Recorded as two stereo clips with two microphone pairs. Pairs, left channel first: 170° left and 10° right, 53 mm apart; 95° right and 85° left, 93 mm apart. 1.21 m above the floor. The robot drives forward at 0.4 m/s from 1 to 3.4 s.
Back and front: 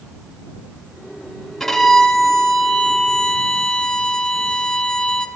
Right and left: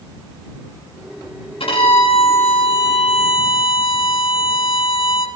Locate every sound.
1.6 s a violin: 105° right, 6 m; by 5.3 s 110° right, 6.5 m